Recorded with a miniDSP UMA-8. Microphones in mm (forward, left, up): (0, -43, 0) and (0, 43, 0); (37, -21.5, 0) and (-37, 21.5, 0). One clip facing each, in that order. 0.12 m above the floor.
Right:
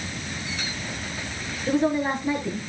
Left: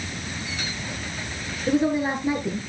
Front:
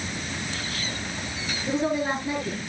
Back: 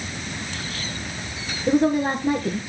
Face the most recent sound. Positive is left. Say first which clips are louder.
# left 1 dB, back 6 dB
turn(degrees=160)